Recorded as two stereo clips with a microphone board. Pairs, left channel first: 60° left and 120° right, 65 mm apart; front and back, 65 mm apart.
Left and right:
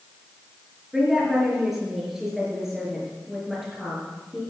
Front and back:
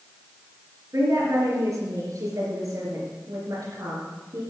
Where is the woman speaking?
155° left, 4 m.